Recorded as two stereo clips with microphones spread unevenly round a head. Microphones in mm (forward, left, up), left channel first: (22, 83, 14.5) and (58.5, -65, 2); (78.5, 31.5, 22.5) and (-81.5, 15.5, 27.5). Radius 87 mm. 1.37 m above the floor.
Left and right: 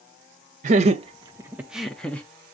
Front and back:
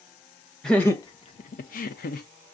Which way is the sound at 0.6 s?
80° right.